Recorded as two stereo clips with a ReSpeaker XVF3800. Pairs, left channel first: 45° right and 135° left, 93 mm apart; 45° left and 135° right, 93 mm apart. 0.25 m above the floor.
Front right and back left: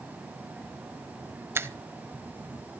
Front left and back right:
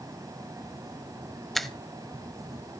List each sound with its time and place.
1.6 s a finger snap: 130° left, 0.9 m